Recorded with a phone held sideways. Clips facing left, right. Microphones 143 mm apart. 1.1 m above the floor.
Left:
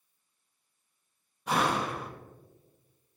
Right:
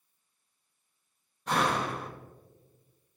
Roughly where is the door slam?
Centre.